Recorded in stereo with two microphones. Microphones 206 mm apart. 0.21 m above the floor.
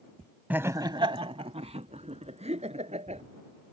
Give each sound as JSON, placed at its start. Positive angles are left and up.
{"t": 0.5, "sound": "laughter", "side_deg": -10}